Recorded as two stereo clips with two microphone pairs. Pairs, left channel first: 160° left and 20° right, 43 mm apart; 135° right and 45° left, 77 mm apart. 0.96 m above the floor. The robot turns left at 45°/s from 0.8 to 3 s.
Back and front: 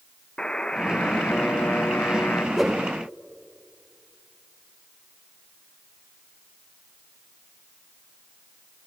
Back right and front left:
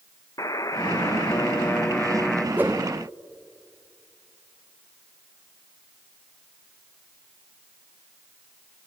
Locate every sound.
0.4 s a buzzer: 140° right, 0.5 m; by 2.5 s 145° left, 0.5 m
2.6 s a whoosh: 65° left, 0.8 m; by 2.9 s 55° left, 0.8 m